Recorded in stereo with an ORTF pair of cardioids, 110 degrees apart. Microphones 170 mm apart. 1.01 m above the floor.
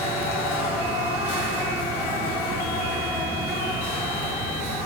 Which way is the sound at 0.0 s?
65° left.